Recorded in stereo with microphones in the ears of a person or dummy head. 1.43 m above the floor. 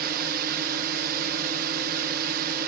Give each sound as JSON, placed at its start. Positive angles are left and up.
{"t": 0.0, "sound": "a drone", "side_deg": -55}